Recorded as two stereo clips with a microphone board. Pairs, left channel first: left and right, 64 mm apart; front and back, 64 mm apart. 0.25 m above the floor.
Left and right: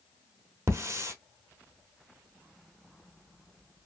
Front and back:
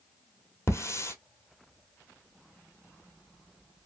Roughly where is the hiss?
Ahead right.